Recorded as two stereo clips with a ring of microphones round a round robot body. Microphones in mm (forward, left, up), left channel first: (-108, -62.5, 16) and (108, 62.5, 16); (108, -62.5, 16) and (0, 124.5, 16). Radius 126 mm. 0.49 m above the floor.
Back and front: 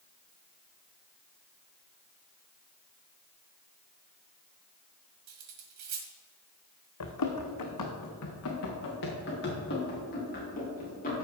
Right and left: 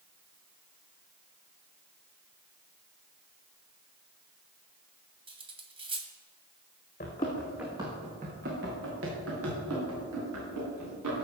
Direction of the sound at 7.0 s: 125° right.